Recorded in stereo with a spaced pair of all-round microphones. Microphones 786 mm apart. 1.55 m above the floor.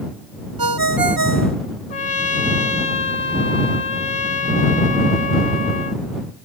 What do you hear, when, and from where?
0.6 s a ringtone: 30° right (ahead or behind)
1.9 s a trumpet: 70° left (ahead or behind)